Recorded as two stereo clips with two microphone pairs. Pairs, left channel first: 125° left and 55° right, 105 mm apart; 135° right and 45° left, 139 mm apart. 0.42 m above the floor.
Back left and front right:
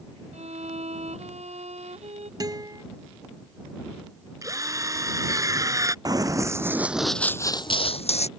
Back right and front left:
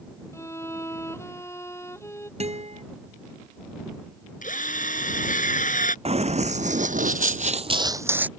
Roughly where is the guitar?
Ahead.